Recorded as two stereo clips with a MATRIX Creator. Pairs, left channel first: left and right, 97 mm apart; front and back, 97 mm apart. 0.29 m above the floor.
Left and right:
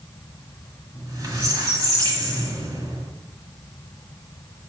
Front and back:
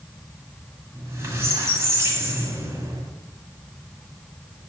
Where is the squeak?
130° right, 1.5 m.